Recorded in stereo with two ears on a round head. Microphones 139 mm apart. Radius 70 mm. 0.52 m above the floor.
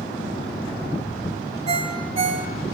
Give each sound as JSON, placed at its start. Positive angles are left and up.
{"t": 1.7, "sound": "a ringtone", "side_deg": -40, "distance_m": 2.0}